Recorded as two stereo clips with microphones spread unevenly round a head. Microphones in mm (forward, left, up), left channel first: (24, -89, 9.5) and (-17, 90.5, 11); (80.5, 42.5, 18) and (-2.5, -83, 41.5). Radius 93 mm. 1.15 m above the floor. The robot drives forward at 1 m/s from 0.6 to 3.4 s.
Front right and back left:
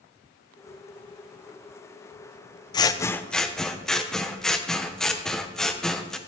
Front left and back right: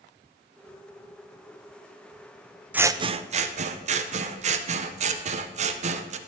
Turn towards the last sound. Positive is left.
turn(degrees=-165)